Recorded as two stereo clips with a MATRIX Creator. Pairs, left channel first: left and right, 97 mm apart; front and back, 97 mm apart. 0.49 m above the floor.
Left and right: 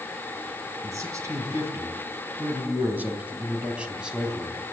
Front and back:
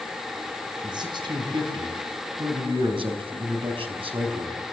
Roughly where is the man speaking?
Behind right.